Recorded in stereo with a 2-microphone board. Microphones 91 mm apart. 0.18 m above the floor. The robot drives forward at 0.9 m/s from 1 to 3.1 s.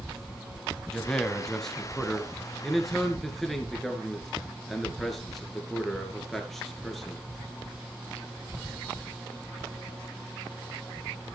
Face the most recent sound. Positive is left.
turn(degrees=5)  # may be behind; listen again after turning